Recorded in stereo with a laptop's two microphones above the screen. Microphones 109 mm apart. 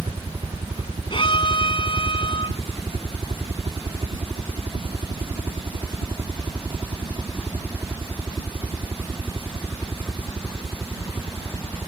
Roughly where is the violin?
Left.